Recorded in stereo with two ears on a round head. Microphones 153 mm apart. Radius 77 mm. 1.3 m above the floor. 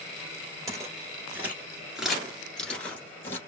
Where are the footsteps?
20° right (ahead or behind), 1.4 m; by 3.4 s 15° left (ahead or behind), 1.4 m.